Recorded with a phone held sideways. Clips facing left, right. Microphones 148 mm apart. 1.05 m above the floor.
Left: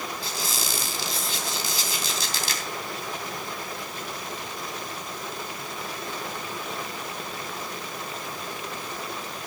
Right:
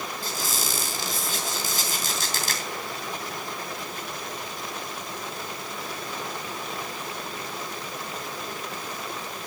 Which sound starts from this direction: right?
A squeak, at 0.2 s.